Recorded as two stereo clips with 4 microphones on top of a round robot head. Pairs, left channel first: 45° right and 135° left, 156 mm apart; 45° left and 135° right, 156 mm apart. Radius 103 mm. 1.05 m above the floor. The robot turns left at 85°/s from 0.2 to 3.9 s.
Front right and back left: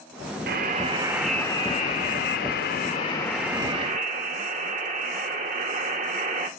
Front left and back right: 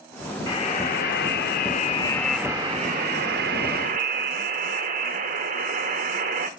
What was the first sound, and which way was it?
A buzzer, 115° left.